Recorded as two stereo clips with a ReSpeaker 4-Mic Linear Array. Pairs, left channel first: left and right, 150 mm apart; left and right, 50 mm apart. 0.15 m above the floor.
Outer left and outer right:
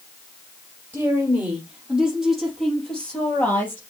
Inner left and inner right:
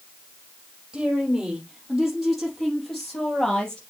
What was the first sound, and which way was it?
A woman speaking, 15° right (ahead or behind).